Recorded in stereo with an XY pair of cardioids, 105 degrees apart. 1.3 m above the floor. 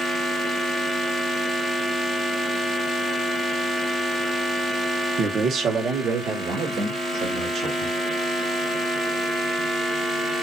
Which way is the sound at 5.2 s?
55° right.